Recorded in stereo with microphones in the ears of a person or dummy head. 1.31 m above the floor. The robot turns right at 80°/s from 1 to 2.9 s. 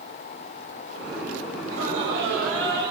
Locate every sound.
1.6 s laughter: 120° right, 6.5 m; by 2.9 s 20° right, 6.5 m